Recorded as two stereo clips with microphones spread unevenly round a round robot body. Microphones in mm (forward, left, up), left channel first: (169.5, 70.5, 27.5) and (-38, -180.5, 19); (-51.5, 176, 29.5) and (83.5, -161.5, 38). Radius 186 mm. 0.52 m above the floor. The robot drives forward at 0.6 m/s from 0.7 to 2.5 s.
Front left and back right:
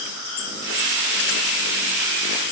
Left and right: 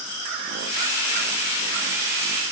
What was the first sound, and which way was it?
Only background noise.